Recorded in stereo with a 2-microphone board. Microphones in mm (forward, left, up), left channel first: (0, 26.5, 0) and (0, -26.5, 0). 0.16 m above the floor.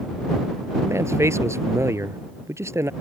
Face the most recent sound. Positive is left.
turn(degrees=-60)  # may be behind; listen again after turning